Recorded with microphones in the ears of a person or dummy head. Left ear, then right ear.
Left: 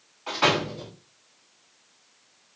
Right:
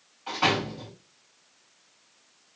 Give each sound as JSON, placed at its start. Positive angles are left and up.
{"t": 0.3, "sound": "a door slam", "side_deg": 10, "distance_m": 1.7}